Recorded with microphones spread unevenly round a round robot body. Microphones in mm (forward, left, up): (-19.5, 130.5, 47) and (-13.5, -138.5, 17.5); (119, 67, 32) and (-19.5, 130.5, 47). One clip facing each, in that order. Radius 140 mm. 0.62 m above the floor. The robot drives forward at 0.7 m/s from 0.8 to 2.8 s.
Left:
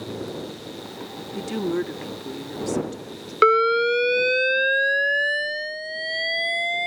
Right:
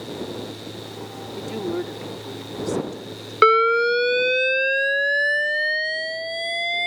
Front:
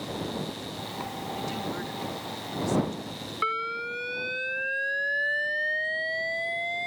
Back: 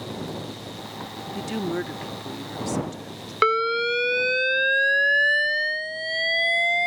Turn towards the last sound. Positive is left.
turn(degrees=180)